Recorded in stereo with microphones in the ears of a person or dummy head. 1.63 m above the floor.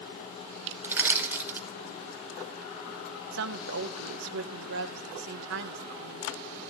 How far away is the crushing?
About 3.5 m.